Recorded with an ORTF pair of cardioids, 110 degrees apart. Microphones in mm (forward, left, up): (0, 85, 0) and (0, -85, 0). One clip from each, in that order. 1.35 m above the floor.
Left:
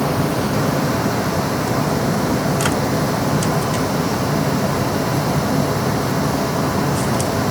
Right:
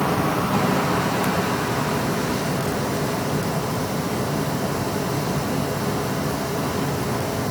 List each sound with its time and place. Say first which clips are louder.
0.0 s a fan: left 2 dB; 30° left